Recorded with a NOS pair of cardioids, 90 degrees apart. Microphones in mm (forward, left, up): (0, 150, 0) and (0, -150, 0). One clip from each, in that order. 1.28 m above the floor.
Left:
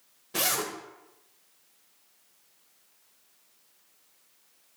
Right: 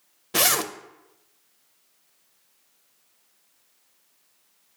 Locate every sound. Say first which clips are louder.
0.3 s a zipper: right 6 dB; 40° right, 0.6 m